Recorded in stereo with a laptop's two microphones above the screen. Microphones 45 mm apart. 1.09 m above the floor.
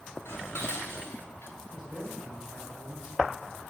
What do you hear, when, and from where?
0.2 s dishes clattering: 75° left (ahead or behind), 4 m
1.7 s a man speaking: 10° right (ahead or behind), 3.5 m